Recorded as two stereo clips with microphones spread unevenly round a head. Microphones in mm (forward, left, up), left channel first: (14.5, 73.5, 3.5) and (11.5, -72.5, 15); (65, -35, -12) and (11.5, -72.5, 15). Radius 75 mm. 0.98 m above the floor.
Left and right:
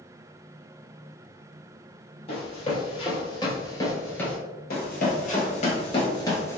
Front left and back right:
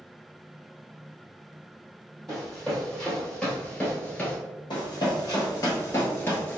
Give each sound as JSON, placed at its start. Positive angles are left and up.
{"t": 2.3, "sound": "running footsteps", "azimuth_deg": 135, "distance_m": 1.7}
{"t": 4.7, "sound": "running footsteps", "azimuth_deg": 90, "distance_m": 1.5}